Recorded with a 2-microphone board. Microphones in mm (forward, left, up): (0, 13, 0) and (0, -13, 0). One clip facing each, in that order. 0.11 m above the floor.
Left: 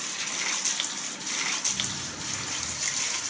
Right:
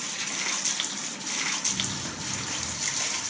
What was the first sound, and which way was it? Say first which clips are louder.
Running footsteps: right 1 dB; 55° right (ahead or behind).